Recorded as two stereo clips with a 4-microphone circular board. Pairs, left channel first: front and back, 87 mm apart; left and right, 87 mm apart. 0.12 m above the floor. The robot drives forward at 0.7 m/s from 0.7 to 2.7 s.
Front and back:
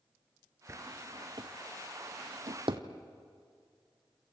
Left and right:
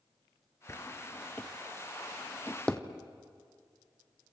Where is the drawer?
135° left, 0.6 m; by 2.8 s 170° left, 1.8 m.